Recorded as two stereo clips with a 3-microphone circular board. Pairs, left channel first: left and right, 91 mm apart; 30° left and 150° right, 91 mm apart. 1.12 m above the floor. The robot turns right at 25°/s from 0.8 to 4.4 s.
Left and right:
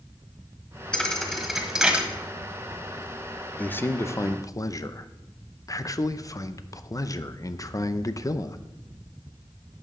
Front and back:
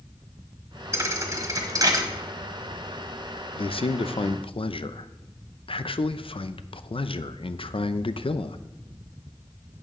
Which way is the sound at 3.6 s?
20° left.